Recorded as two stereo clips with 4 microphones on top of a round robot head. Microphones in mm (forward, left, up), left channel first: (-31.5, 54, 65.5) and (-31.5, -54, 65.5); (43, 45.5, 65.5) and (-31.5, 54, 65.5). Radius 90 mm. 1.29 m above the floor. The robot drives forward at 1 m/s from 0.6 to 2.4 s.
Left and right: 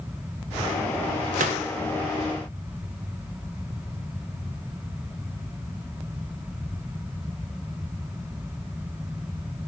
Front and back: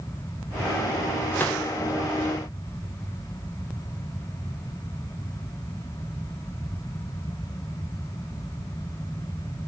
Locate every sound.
1.3 s a gunshot: 80° right, 1.7 m; by 1.6 s 90° right, 1.7 m